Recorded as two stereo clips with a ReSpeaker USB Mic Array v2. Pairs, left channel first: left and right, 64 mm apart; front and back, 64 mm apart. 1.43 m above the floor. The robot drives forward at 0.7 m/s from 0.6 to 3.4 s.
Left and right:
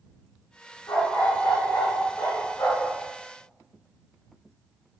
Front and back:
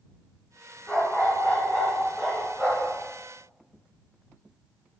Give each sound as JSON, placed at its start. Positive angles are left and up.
{"t": 0.9, "sound": "a dog barking", "azimuth_deg": 75, "distance_m": 3.5}